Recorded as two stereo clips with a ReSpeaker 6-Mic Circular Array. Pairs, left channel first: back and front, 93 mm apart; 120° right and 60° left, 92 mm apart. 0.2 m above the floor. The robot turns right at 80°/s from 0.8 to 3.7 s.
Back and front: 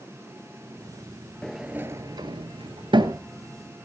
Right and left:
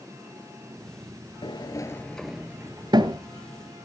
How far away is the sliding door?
About 0.9 m.